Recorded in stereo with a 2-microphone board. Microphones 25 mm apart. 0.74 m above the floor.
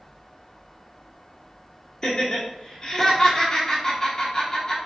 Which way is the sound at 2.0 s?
25° left (ahead or behind).